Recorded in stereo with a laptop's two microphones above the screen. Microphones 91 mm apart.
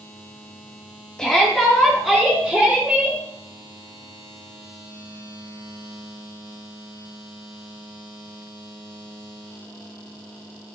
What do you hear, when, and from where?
1.2 s a shout: 5° left (ahead or behind), 2.5 m; by 3.2 s 5° right (ahead or behind), 4.5 m